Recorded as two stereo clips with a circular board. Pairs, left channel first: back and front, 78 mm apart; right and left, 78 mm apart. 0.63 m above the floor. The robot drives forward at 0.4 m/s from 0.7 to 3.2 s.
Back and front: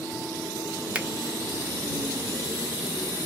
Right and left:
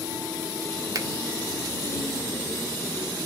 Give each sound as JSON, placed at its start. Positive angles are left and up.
{"t": 0.9, "sound": "a finger snap", "azimuth_deg": 70, "distance_m": 0.5}